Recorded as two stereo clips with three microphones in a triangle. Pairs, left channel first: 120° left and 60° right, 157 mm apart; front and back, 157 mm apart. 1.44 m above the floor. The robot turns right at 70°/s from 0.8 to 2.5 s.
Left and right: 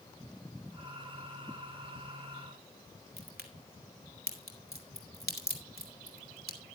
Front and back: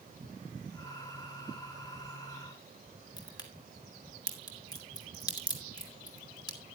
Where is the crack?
65° right, 2.5 m.